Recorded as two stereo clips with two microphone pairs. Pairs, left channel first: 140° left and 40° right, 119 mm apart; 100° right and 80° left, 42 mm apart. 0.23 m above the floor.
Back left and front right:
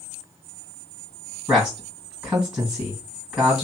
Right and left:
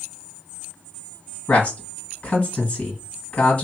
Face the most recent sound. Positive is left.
turn(degrees=-120)